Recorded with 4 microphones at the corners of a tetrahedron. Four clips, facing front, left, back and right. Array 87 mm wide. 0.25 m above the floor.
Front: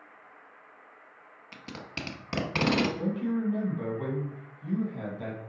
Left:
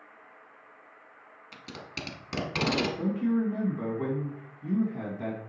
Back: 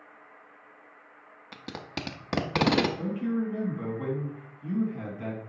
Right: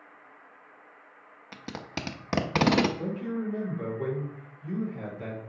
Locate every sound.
1.5 s tape being pulled: 125° right, 0.7 m
3.0 s a man speaking: 70° left, 2 m